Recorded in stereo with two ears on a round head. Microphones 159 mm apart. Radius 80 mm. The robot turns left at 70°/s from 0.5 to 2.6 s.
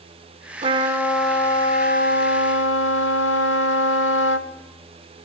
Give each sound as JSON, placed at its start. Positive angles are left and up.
{"t": 0.6, "sound": "a trumpet", "azimuth_deg": -140, "distance_m": 1.7}